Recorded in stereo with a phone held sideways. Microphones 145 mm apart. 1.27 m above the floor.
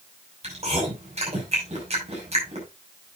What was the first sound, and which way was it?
Chewing, 45° right (ahead or behind).